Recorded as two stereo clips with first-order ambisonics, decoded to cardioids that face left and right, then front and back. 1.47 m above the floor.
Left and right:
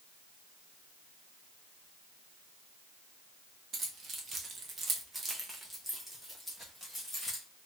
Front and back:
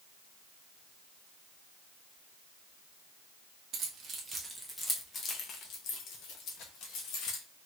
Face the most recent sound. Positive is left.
turn(degrees=0)